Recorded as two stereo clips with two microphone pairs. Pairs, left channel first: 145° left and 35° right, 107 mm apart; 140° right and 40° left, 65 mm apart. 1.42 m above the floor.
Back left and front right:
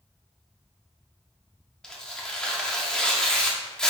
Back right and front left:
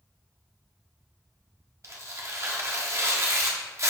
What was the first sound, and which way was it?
Tearing paper, 60° left.